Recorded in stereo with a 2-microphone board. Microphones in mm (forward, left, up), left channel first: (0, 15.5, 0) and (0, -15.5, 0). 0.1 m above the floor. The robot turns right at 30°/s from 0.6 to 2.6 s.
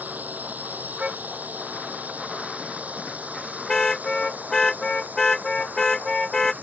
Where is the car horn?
30° right (ahead or behind); by 6.5 s 20° left (ahead or behind).